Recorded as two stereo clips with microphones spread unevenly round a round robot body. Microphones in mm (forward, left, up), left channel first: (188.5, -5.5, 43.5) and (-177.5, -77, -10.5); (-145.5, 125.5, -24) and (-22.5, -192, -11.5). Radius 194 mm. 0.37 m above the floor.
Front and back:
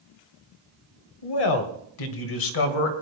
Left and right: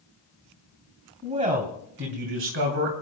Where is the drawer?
No drawer in this recording.